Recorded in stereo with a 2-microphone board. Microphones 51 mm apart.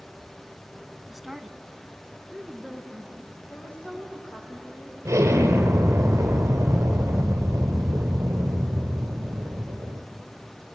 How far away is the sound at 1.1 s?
About 1.2 m.